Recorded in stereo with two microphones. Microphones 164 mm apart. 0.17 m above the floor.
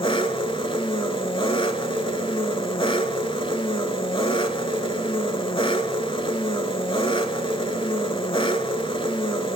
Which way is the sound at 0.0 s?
30° left (ahead or behind).